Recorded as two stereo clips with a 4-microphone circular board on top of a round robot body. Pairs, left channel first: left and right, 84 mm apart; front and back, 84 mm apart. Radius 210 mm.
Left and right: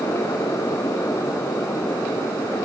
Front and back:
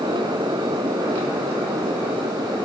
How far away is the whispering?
No whispering in this recording.